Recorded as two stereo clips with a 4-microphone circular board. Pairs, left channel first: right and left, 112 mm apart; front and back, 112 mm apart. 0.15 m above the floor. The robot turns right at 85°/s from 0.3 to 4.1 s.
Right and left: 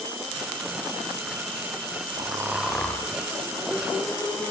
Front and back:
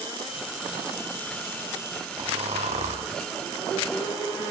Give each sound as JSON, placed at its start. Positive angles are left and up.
{"t": 2.2, "sound": "snoring", "azimuth_deg": 135, "distance_m": 4.0}